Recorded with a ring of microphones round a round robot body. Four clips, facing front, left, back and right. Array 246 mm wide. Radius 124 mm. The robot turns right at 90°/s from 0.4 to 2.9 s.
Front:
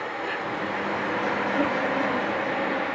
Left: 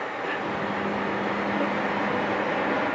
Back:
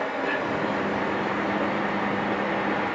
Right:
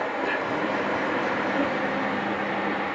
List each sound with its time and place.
0.0 s an insect: 125° right, 1.3 m; by 3.0 s 100° left, 1.3 m